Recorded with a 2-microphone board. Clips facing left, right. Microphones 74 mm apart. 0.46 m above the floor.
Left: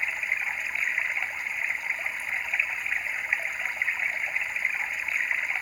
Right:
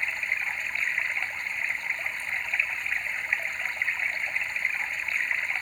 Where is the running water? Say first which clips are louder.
Even; 5° left (ahead or behind).